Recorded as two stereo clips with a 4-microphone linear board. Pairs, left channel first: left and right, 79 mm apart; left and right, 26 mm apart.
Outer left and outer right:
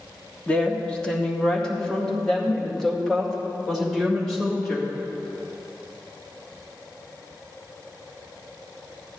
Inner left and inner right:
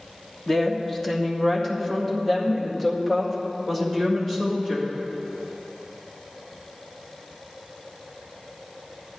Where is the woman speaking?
10° left (ahead or behind), 1.2 m; by 4.9 s centre (ahead or behind), 3 m.